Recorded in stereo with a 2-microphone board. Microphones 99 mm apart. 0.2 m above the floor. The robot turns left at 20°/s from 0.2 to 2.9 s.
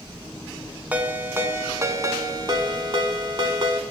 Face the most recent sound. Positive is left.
turn(degrees=-60)